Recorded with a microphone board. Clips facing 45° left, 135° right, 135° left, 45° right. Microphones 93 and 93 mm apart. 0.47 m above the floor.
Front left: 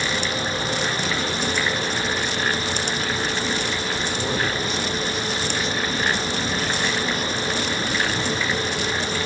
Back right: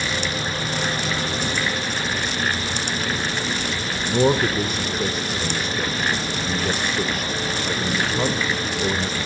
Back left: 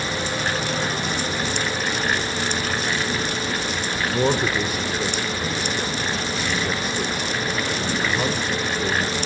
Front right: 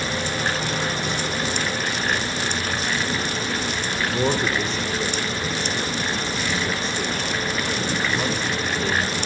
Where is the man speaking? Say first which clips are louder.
Back right 10 dB, back left 2 dB; 145° right, 1.6 m.